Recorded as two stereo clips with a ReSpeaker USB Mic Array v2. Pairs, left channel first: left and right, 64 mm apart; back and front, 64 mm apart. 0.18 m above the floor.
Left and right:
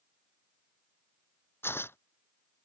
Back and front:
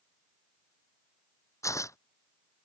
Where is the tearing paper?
145° left.